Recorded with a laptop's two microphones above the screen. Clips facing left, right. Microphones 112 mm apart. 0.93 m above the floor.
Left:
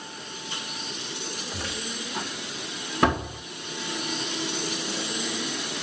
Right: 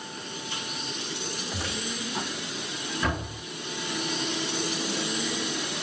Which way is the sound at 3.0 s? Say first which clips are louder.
Left 8 dB; 65° left (ahead or behind).